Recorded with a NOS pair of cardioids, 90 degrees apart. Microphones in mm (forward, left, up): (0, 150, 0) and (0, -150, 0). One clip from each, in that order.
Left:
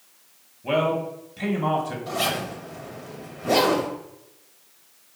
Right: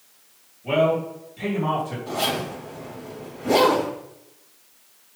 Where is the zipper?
25° left, 1.8 m.